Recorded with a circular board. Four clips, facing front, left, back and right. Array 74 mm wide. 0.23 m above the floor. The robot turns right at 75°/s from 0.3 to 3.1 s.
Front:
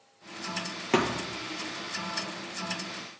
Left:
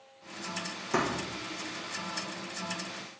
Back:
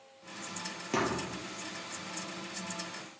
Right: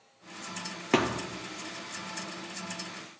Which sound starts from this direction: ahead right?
A thud, at 0.9 s.